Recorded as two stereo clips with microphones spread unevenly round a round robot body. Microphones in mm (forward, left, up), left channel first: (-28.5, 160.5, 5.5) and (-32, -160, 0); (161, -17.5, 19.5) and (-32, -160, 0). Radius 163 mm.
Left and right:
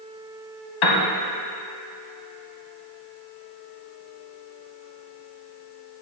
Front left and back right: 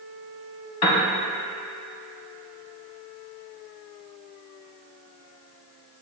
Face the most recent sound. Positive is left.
turn(degrees=70)